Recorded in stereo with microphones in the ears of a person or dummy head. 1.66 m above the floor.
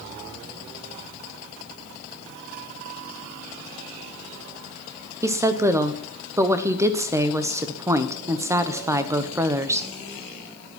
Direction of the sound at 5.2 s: 10° right (ahead or behind).